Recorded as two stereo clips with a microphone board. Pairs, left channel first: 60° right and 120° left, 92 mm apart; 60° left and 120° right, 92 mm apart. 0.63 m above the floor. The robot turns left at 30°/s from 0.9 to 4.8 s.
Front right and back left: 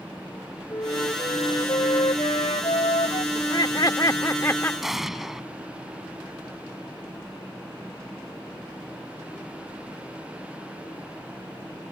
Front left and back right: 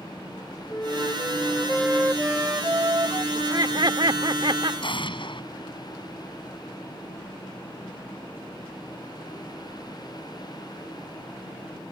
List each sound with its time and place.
0.7 s a flute: 5° right; by 3.2 s 75° right
3.4 s laughter: 85° right; by 4.7 s 125° right
4.8 s an explosion: 35° left